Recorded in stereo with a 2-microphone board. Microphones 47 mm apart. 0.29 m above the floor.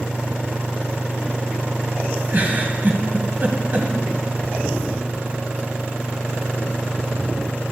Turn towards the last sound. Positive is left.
turn(degrees=-40)  # may be behind; listen again after turning